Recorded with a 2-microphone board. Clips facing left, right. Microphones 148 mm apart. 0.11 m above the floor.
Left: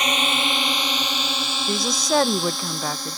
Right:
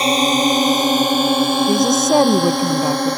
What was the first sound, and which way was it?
A drone, 35° right (ahead or behind).